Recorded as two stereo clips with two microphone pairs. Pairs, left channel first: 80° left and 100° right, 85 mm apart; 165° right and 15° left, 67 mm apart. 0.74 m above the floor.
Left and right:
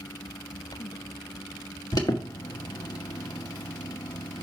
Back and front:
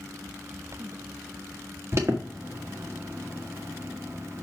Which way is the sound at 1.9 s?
50° left.